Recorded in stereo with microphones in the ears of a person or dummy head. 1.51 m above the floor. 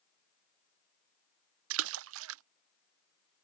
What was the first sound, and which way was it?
A splash, 85° right.